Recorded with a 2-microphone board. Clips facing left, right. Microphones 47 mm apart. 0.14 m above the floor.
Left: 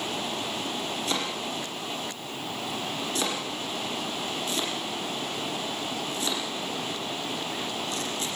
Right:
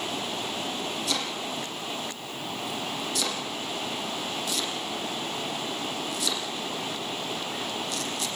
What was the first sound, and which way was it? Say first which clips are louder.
Chopping: left 1 dB; 35° left (ahead or behind).